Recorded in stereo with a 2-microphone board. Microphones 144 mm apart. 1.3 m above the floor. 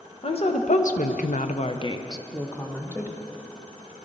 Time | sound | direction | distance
0.2 | a woman speaking | 45° left (ahead or behind) | 1.1 m